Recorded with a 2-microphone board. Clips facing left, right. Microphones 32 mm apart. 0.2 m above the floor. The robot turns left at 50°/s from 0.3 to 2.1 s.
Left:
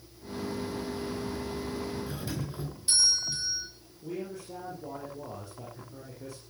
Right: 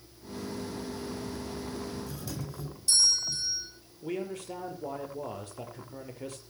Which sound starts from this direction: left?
A doorbell, at 2.1 s.